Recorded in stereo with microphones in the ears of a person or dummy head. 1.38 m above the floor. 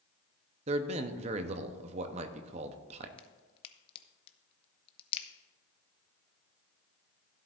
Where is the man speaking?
35° right (ahead or behind), 0.9 m.